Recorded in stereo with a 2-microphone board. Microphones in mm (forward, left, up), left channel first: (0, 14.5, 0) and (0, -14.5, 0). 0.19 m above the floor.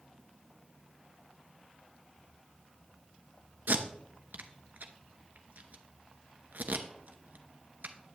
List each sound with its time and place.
3.7 s tape being pulled: 70° right (ahead or behind), 0.8 m